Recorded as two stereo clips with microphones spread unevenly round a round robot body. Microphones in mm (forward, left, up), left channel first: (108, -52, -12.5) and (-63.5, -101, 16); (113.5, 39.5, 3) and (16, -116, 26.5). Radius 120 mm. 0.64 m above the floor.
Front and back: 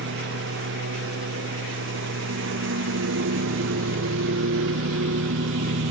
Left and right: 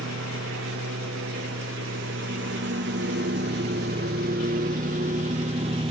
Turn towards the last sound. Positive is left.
turn(degrees=170)